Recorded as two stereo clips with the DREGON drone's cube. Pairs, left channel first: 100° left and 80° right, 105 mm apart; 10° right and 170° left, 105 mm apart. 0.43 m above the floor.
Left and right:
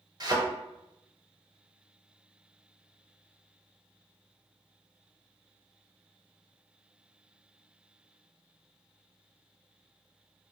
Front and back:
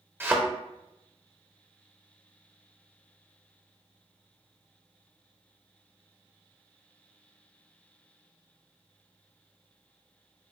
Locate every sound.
0.2 s a thud: 120° right, 0.8 m